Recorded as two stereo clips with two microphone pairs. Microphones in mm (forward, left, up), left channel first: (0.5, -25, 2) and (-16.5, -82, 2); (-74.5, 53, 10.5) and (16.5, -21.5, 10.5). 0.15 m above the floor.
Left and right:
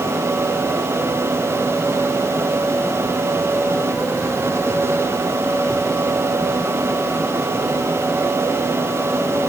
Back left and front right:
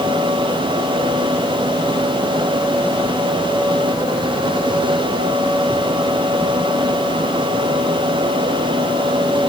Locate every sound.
Only background noise.